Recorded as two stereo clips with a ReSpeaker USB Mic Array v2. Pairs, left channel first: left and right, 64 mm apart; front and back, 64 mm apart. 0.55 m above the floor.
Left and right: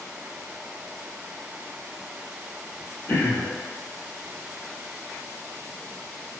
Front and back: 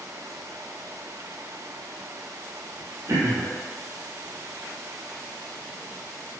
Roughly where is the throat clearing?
Behind left.